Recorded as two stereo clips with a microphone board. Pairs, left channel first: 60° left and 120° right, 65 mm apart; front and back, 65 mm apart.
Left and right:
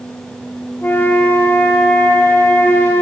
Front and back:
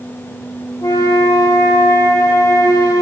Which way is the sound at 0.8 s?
5° left.